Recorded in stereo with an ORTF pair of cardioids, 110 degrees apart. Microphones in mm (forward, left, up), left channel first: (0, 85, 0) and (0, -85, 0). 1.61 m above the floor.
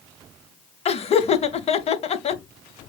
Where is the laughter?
35° left, 0.8 m.